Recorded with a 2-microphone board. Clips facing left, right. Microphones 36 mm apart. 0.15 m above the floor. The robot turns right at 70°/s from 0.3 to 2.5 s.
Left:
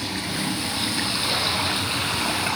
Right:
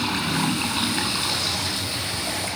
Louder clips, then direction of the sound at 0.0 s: Right 4 dB; 75° right.